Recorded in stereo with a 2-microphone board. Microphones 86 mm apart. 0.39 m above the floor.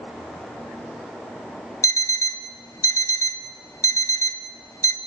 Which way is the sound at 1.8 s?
35° left (ahead or behind).